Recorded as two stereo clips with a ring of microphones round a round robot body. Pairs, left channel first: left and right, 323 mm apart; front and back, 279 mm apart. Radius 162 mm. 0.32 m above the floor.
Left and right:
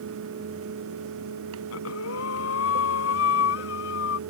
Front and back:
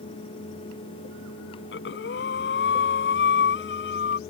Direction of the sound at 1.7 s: 45° left.